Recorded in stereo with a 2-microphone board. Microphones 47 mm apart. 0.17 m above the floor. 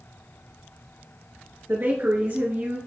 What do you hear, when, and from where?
1.7 s a woman speaking: 55° right (ahead or behind), 2.5 m; by 2.8 s 45° right (ahead or behind), 2 m